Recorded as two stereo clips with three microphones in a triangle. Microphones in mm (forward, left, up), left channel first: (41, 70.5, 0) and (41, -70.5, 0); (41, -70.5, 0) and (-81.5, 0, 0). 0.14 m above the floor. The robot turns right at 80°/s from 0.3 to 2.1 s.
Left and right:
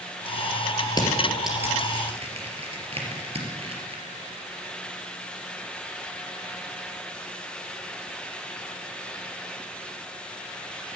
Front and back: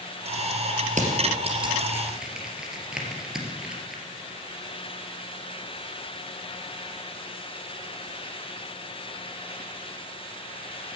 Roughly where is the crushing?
Behind left.